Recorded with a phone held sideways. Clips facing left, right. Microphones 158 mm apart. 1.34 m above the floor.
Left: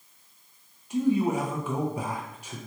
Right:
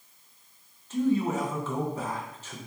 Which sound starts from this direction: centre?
A man speaking, at 0.9 s.